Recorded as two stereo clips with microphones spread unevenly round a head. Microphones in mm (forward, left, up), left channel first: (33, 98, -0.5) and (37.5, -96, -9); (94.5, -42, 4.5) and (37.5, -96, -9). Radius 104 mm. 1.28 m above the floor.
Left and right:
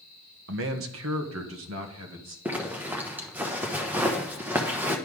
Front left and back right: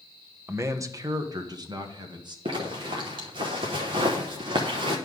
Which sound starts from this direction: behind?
A zipper, at 2.5 s.